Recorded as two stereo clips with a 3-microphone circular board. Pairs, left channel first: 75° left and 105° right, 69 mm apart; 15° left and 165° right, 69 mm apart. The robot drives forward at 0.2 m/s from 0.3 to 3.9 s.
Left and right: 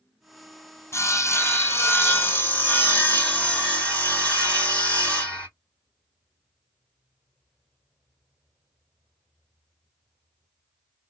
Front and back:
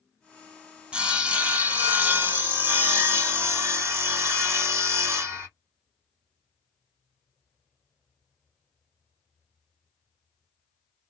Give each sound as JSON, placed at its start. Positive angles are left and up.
{"t": 0.9, "sound": "sawing", "azimuth_deg": 120, "distance_m": 0.7}